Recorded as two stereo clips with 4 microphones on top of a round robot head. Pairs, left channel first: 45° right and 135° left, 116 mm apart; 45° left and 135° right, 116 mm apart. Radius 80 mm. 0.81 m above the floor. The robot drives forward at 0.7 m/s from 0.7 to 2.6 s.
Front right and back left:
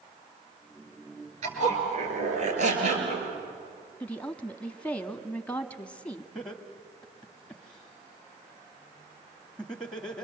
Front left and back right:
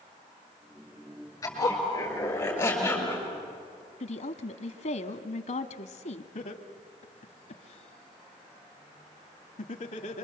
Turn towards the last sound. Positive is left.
turn(degrees=40)